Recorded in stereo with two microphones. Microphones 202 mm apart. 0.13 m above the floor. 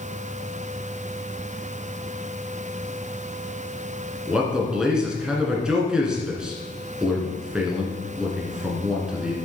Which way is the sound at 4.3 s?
5° right (ahead or behind).